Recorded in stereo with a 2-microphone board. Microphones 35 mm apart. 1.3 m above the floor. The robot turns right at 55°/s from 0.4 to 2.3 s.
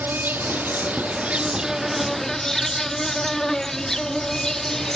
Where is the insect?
90° right; by 5.0 s 15° left.